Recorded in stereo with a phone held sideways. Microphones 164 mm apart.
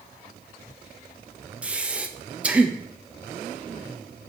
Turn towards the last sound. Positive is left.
turn(degrees=-10)  # may be behind; listen again after turning